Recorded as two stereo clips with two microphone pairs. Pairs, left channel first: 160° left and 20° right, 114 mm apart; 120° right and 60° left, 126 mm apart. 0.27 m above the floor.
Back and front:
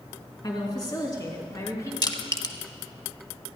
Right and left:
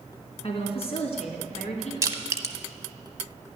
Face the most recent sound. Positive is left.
turn(degrees=120)